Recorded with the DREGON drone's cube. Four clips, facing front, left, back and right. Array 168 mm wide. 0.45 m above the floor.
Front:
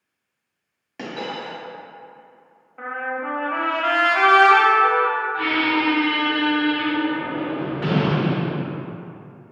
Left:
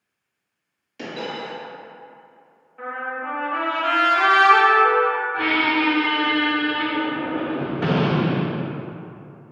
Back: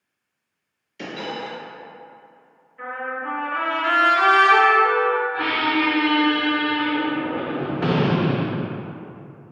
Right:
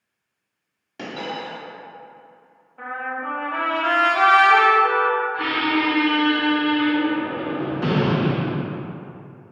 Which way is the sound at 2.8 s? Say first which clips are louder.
Even, front 2 dB; 20° right.